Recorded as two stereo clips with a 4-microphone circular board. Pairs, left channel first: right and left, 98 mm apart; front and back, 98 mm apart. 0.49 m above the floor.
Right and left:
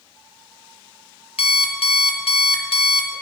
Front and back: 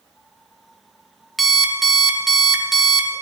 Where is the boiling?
I don't hear boiling.